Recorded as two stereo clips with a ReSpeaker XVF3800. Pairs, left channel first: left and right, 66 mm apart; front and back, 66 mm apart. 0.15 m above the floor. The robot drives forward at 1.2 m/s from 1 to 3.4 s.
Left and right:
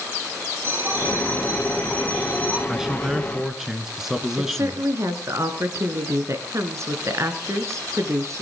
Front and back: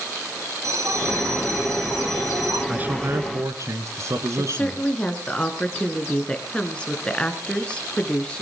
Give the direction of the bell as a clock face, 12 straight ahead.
5 o'clock.